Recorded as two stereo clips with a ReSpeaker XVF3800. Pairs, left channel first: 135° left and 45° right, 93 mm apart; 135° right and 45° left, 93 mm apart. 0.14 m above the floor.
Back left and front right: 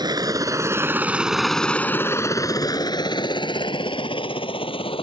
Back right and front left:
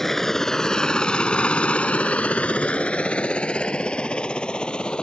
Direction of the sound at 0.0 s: 50° right.